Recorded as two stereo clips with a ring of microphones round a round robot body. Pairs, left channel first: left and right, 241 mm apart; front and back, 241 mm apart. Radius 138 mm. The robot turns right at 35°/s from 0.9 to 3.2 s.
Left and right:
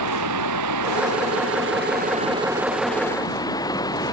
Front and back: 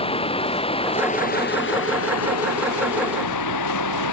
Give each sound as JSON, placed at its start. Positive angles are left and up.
{"t": 0.0, "sound": "running water", "azimuth_deg": -70}